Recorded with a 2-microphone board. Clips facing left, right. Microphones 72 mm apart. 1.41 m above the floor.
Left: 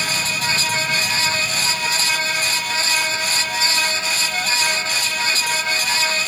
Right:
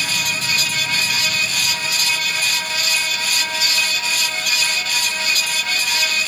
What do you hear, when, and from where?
Only background noise.